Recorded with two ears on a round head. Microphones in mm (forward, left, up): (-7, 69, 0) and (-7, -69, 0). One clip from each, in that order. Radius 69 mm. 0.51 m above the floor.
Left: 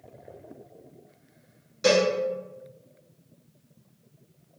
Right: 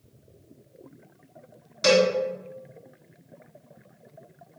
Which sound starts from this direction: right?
A cowbell, at 1.8 s.